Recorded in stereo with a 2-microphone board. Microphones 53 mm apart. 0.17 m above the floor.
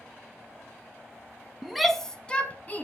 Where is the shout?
5° right (ahead or behind), 1.2 m; by 2.8 s 35° left (ahead or behind), 1.4 m.